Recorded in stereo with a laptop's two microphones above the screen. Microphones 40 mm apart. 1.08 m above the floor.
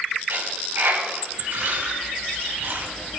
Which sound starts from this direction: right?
A dropped coin, at 0.3 s.